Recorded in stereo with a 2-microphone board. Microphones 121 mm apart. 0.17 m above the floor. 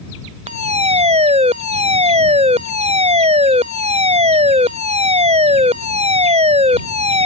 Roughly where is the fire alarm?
Right.